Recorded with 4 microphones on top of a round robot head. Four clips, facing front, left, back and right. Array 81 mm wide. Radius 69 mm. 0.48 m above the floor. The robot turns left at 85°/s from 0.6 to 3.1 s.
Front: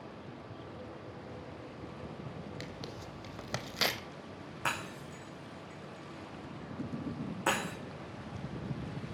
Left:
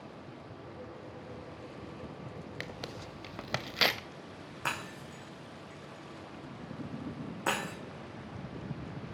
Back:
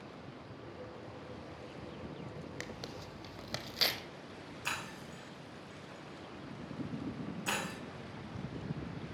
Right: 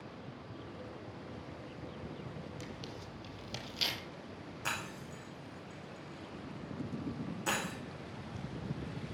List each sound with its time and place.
2.6 s tearing paper: 115° left, 0.6 m; by 4.0 s 70° left, 0.6 m
4.7 s breaking glass: 40° left, 4.5 m